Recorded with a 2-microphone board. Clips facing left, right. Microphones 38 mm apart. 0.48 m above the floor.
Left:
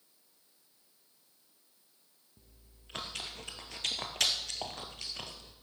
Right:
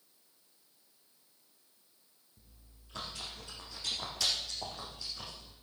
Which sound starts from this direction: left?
Chewing, at 2.4 s.